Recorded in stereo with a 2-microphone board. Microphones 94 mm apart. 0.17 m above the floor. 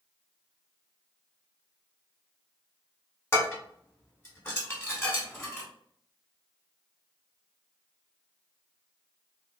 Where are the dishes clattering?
25° left (ahead or behind), 1.2 m.